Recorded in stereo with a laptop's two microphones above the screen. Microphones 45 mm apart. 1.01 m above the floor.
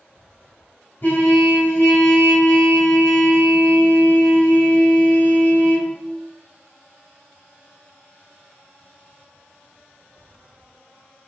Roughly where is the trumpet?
Left.